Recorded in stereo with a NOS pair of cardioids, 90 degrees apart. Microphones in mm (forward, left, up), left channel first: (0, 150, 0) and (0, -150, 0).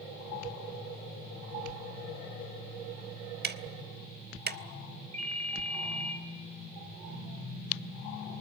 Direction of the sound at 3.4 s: 35° right.